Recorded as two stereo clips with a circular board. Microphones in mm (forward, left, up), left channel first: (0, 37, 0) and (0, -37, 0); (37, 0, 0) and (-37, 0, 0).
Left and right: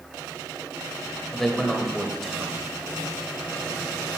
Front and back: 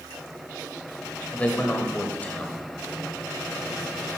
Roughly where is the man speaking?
Ahead.